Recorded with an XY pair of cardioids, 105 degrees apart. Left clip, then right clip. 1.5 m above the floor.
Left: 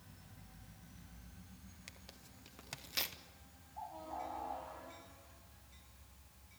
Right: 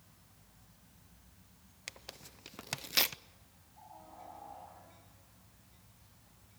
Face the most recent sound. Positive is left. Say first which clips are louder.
# left 8 dB
turn(degrees=70)